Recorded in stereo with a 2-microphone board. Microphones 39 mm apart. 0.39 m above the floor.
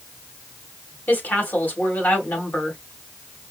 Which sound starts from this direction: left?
A woman speaking, at 1.1 s.